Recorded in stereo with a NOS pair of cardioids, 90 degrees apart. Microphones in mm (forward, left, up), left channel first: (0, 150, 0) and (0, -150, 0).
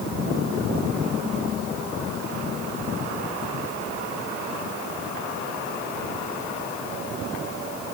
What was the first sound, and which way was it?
Only background noise.